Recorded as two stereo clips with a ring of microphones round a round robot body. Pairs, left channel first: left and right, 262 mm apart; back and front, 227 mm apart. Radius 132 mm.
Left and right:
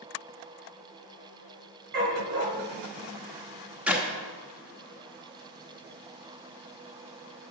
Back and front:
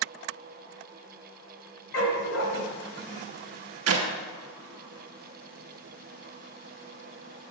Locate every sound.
1.9 s a dog barking: 140° right, 1.5 m
3.9 s a clap: 5° right, 0.9 m